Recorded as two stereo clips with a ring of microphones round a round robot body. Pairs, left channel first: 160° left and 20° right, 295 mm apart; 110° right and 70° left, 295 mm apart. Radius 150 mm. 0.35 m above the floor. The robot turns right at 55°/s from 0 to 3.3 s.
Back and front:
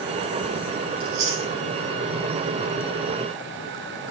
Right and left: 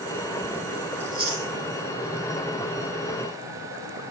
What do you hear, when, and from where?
1.0 s chewing: 15° right, 5 m; by 1.5 s 10° left, 5 m